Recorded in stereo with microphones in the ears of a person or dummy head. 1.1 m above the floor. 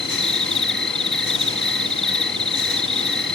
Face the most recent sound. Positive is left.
turn(degrees=10)  # may be behind; listen again after turning